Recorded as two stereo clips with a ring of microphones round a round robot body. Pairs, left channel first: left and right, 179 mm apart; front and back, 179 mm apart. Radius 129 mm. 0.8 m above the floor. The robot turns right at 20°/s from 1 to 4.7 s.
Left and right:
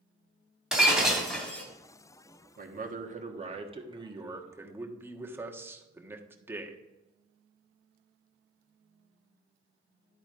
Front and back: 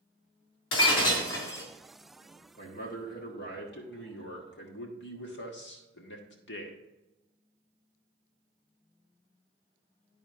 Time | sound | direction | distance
0.7 | breaking glass | 5° right | 2.5 m
2.6 | a man speaking | 55° right | 1.4 m